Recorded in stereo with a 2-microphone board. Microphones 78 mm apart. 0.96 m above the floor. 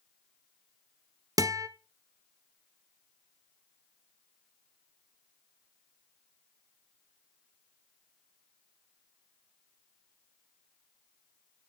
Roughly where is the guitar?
Right.